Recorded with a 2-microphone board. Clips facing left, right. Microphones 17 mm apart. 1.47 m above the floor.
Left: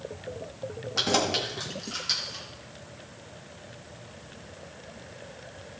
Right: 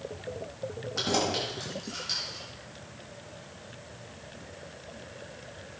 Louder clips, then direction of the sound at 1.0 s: Left 3 dB; 20° left (ahead or behind).